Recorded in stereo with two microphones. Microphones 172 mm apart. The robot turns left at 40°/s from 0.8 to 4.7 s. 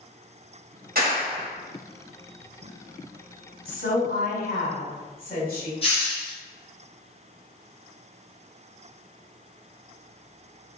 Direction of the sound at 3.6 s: 115° left.